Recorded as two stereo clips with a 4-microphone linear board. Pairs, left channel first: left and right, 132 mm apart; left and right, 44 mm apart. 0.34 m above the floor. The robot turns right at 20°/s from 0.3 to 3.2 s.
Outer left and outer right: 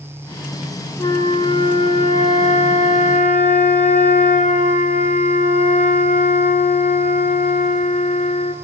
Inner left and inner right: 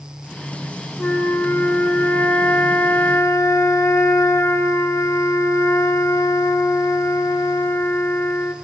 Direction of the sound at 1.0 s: 30° left.